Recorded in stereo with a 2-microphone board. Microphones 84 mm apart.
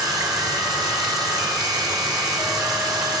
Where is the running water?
50° right (ahead or behind), 1.7 m.